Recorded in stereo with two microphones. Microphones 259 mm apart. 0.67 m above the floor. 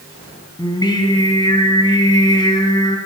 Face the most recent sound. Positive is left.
turn(degrees=15)  # may be behind; listen again after turning